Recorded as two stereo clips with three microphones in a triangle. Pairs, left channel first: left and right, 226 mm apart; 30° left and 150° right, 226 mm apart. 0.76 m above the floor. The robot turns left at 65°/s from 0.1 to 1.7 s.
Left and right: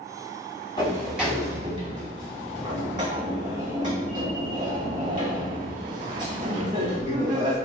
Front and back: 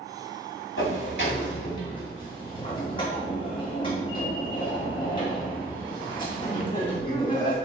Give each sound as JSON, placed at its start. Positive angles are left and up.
{"t": 0.8, "sound": "a sliding door", "azimuth_deg": 25, "distance_m": 2.0}